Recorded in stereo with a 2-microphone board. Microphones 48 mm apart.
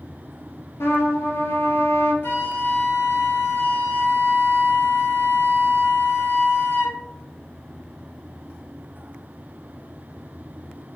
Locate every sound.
0.8 s a trumpet: 70° left (ahead or behind), 0.6 m
2.2 s a flute: 55° left (ahead or behind), 0.8 m